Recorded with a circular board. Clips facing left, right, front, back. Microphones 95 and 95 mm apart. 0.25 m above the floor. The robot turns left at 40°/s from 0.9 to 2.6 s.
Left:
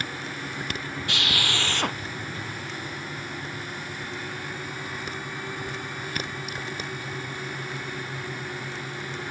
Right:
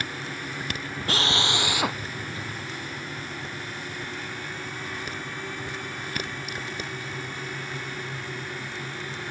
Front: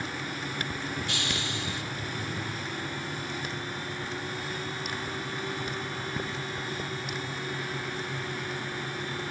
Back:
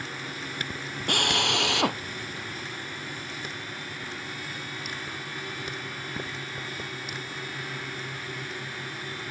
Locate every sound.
1.1 s a drill: 145° right; by 2.0 s straight behind